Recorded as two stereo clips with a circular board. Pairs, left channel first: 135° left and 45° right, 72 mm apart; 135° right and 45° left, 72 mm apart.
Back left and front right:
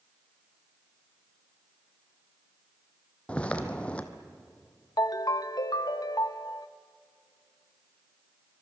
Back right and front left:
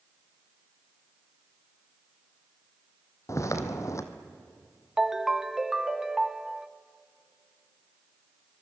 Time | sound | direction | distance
3.3 | footsteps | 155° right | 1.6 m
5.0 | a ringtone | 125° left | 0.7 m